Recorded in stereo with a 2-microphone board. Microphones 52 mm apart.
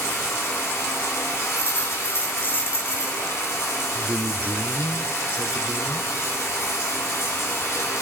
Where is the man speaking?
35° right (ahead or behind), 1.0 m.